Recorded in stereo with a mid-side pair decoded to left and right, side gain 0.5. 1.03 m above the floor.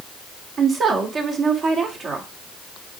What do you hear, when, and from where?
0.6 s a woman speaking: 50° right, 3 m